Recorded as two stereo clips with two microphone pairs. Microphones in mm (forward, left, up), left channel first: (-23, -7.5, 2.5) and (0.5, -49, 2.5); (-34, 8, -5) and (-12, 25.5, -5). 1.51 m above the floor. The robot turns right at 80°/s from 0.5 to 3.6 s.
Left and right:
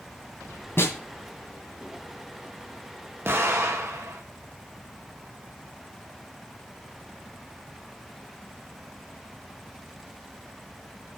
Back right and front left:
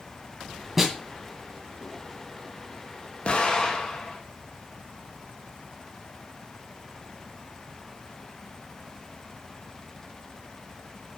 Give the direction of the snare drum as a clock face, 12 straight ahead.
8 o'clock.